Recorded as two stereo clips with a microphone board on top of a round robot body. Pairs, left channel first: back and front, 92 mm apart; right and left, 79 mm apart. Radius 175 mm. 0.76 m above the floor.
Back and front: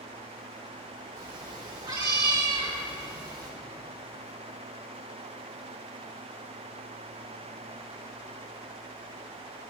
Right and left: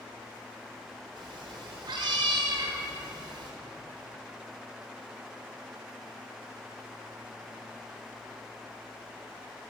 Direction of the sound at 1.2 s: 50° left.